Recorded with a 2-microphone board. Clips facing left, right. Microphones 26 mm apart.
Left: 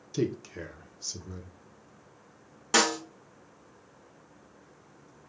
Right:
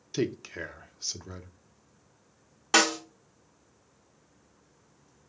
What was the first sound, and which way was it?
A man speaking, 30° right (ahead or behind).